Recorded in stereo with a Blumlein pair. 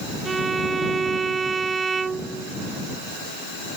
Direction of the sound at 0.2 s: 15° right.